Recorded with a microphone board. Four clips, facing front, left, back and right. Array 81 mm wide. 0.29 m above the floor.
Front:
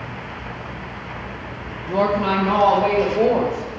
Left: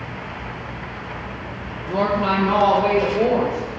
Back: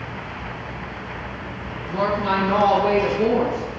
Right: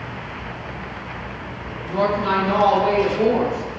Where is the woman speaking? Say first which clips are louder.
Even, front 3 dB; 25° left, 6.5 m; by 3.8 s 15° left, 5.5 m.